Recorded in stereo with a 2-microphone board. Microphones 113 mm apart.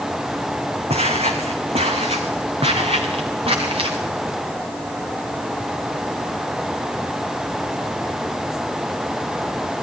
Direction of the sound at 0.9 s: 65° right (ahead or behind).